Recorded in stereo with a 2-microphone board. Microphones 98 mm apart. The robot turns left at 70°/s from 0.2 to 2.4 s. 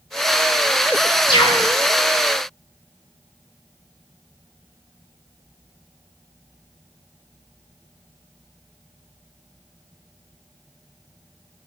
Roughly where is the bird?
Left.